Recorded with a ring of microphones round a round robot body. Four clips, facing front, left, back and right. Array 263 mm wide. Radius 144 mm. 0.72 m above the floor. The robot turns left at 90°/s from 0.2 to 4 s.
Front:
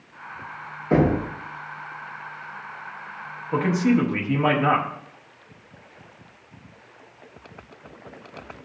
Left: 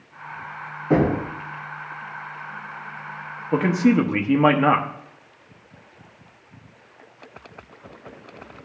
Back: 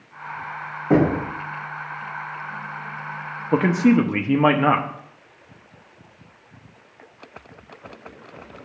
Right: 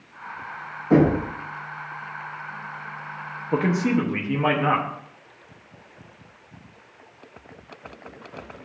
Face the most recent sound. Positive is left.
turn(degrees=135)